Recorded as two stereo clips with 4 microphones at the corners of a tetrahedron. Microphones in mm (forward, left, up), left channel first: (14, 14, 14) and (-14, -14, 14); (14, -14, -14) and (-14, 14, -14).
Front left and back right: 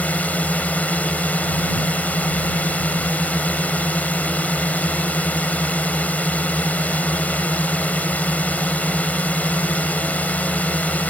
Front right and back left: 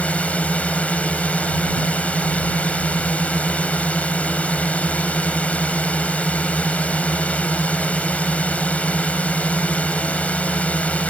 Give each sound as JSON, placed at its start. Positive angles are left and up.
{"t": 0.0, "sound": "a drone", "azimuth_deg": 5}